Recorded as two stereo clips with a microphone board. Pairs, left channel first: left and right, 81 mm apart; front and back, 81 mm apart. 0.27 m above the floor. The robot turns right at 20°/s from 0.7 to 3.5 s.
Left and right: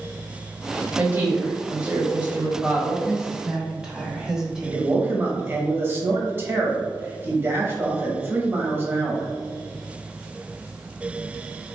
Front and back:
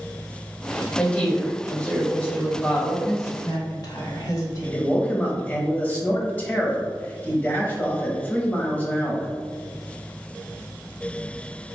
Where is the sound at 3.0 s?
20° right, 1.3 m; by 5.0 s 10° right, 1.3 m.